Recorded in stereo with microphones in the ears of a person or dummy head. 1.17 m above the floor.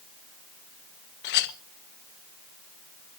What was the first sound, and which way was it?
A clink, 60° left (ahead or behind).